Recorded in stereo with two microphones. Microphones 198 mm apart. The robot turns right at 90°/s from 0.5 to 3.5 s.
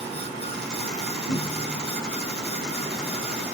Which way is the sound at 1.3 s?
65° left (ahead or behind).